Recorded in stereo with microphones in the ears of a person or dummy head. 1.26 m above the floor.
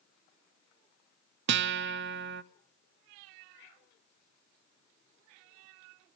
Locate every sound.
1.5 s a guitar: 75° right (ahead or behind), 0.8 m